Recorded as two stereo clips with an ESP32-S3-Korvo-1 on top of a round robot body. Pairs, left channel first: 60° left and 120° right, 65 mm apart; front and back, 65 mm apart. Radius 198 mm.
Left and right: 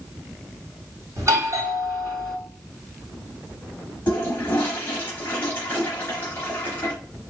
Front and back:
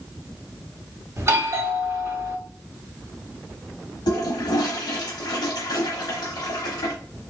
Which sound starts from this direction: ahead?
A toilet flushing, at 4.1 s.